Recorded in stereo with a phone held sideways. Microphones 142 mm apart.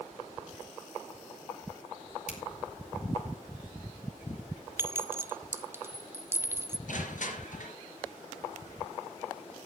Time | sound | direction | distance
2.3 | a finger snap | 65° left (ahead or behind) | 2 m
4.8 | a clink | 20° right (ahead or behind) | 0.5 m
6.9 | crushing | 70° left (ahead or behind) | 3.5 m